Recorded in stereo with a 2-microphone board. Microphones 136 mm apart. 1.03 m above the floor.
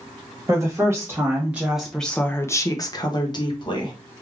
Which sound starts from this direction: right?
A woman speaking, at 0.5 s.